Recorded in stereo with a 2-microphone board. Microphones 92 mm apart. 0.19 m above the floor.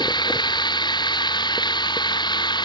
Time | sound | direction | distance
0.0 | running water | 55° left (ahead or behind) | ?